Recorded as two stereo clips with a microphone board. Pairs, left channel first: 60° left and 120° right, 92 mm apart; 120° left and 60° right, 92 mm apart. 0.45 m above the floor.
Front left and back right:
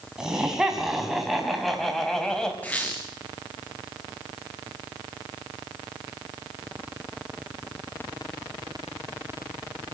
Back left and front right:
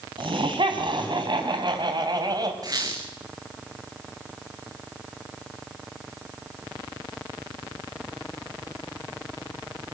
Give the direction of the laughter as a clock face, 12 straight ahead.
1 o'clock.